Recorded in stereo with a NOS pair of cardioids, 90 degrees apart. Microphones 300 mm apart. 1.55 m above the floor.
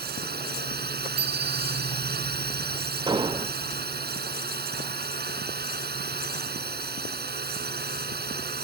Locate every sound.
0.0 s a drone: 30° right
1.2 s a bicycle bell: 55° right
3.1 s an explosion: 15° right